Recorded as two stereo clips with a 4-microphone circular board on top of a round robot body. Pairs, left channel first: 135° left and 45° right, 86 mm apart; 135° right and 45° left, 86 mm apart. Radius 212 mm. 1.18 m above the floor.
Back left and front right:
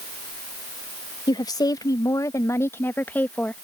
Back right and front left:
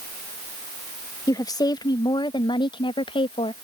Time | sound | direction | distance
1.3 | a woman speaking | 175° left | ?